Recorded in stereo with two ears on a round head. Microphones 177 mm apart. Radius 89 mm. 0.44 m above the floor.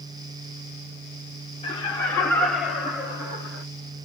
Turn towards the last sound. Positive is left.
turn(degrees=-30)  # may be behind; listen again after turning